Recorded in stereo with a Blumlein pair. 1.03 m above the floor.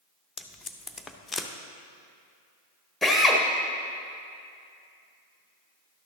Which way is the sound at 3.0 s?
Straight ahead.